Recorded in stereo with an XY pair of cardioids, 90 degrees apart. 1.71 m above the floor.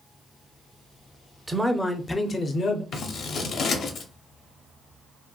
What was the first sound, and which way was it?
A man speaking, 15° right.